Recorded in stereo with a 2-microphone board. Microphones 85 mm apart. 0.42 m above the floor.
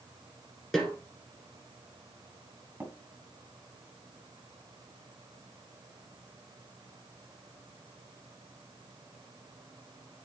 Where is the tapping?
25° right (ahead or behind), 2 m.